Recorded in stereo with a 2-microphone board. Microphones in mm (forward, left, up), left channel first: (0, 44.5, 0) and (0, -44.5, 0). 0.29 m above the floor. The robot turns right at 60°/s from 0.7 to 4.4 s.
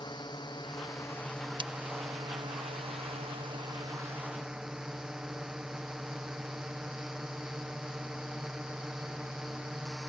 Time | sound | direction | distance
0.0 | a drone | 130° left | ?
1.6 | breaking glass | 60° right (ahead or behind) | ?